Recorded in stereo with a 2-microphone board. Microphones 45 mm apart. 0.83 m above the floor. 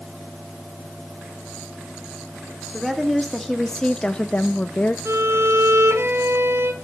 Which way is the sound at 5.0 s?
70° right (ahead or behind).